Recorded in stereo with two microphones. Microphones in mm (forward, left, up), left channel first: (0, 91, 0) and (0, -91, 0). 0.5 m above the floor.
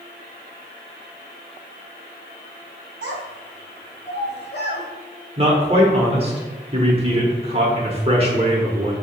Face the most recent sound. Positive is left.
turn(degrees=-35)  # may be behind; listen again after turning